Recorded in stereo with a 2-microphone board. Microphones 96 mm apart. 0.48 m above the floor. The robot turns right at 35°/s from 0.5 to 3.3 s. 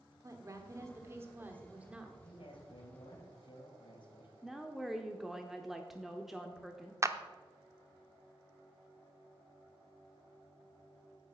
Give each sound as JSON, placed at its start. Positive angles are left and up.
{"t": 0.2, "sound": "a woman speaking", "azimuth_deg": -70, "distance_m": 1.4}
{"t": 2.2, "sound": "a man speaking", "azimuth_deg": 80, "distance_m": 3.0}
{"t": 4.4, "sound": "a woman speaking", "side_deg": -5, "distance_m": 0.8}
{"t": 7.0, "sound": "a clap", "side_deg": -30, "distance_m": 0.5}